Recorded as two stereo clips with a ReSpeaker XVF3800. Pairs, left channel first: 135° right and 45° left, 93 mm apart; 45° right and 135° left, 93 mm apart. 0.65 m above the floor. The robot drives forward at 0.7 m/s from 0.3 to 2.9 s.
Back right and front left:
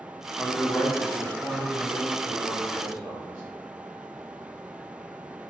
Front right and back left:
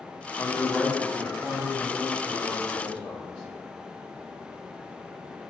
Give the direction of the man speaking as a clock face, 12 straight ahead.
2 o'clock.